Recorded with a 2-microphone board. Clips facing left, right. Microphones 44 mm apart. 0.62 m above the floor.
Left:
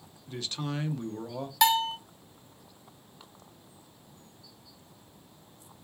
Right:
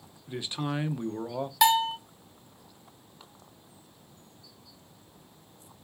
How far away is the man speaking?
About 0.6 m.